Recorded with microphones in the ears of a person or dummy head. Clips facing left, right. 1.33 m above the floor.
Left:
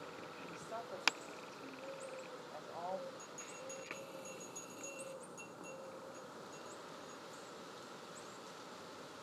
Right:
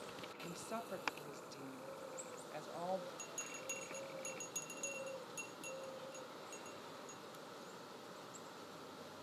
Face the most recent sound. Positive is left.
turn(degrees=-80)